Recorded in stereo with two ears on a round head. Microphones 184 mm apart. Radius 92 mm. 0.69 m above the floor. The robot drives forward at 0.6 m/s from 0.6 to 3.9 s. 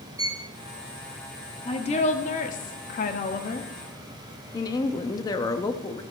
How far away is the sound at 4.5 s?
About 0.5 m.